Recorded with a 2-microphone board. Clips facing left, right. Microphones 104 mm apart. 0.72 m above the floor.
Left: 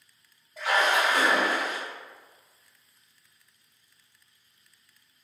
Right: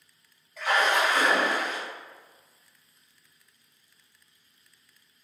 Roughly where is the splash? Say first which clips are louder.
Even; left.